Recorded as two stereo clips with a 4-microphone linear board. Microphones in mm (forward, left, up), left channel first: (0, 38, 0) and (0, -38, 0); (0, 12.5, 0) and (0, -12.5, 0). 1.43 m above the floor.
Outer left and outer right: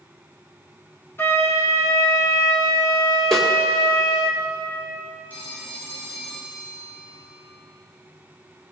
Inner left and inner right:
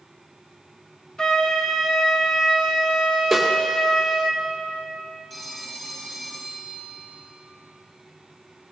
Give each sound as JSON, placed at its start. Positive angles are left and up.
{"t": 1.2, "sound": "a flute", "side_deg": 30, "distance_m": 1.0}
{"t": 3.3, "sound": "a snare drum", "side_deg": 5, "distance_m": 1.7}
{"t": 5.3, "sound": "a phone ringing", "side_deg": 20, "distance_m": 4.5}